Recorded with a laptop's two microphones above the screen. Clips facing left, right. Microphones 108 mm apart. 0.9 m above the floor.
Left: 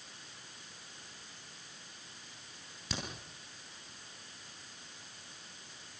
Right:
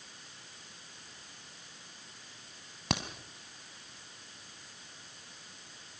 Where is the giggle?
I don't hear a giggle.